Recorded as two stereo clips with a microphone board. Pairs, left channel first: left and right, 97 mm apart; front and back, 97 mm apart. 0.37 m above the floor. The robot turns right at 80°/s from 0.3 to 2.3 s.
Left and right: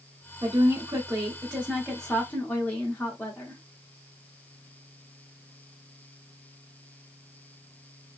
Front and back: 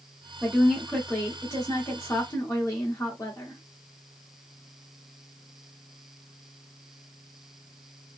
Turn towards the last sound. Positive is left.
turn(degrees=30)